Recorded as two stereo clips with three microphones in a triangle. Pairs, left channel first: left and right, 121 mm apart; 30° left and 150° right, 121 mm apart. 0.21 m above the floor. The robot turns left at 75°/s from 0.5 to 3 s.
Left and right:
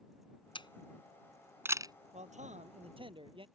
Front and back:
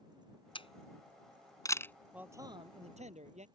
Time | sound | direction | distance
0.6 | a camera shutter | 60° left | ?
2.1 | a man speaking | 70° right | ?